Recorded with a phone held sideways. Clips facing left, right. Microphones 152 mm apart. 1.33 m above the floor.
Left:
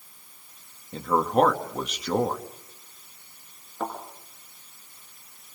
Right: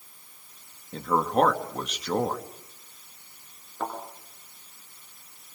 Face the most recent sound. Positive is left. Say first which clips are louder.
# left 1 dB
turn(degrees=10)  # may be behind; listen again after turning